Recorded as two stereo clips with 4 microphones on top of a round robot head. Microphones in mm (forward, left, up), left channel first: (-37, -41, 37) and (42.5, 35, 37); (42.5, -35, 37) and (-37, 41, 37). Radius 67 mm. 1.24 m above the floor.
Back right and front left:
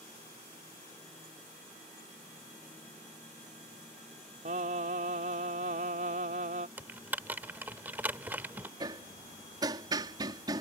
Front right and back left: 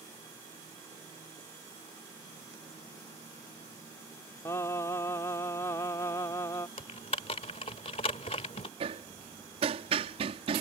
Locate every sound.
4.5 s singing: 25° left
6.8 s typing on a keyboard: 25° right
8.8 s hammering: 100° left